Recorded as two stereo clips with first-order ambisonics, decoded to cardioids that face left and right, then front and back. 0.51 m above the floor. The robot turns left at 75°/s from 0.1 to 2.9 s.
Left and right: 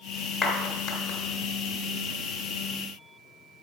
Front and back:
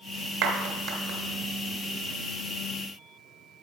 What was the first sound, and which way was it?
A clap, 170° left.